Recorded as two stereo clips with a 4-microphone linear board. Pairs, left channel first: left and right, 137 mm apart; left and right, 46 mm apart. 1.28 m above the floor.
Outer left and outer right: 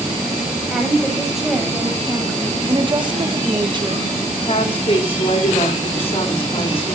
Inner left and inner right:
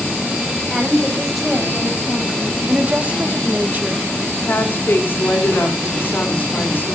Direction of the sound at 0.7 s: Centre (ahead or behind).